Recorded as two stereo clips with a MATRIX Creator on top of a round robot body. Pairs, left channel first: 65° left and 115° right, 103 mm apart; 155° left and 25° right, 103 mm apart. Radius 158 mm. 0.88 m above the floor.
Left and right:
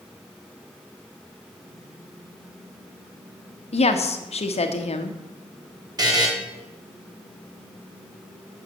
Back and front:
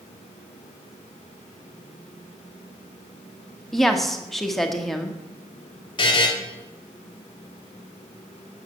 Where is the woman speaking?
70° left, 1.4 m.